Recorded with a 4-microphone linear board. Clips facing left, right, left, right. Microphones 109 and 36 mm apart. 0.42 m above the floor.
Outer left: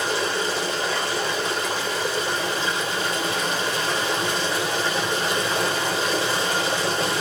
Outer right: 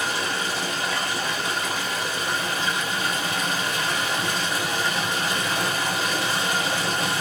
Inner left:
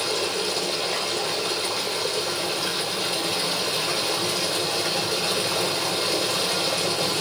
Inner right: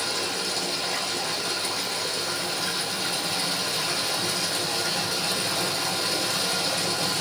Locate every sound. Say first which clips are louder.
0.0 s running water: outer left 3 dB, inner left 3 dB; 30° left (ahead or behind), 1.8 m